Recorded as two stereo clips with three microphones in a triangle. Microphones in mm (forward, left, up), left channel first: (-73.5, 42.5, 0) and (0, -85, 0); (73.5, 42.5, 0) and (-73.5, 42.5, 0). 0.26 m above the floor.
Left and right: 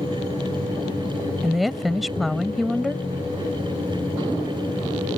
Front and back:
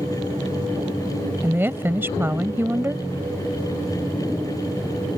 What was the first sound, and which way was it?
A woman speaking, 150° right.